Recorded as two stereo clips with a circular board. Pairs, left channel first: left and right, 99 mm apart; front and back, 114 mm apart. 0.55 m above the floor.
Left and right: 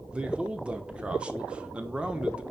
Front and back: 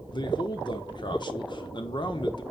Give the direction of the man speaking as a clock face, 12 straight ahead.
1 o'clock.